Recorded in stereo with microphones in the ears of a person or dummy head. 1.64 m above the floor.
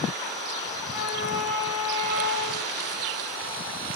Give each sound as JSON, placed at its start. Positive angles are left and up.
{"t": 0.8, "sound": "a flute", "side_deg": -10, "distance_m": 2.0}